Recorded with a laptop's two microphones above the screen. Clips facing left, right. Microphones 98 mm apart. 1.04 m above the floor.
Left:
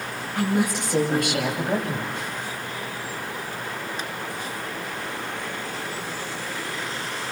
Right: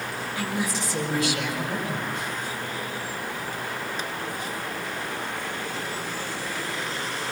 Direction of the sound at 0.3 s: 55° left (ahead or behind).